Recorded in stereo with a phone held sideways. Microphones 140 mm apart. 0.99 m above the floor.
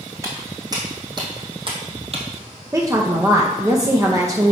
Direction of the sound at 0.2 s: 25° right (ahead or behind).